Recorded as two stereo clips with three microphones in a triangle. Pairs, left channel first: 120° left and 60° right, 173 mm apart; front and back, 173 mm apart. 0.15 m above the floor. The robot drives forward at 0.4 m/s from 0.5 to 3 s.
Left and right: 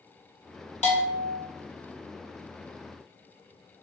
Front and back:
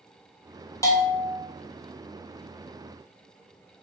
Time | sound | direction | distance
0.8 | a bell | 70° left | 1.3 m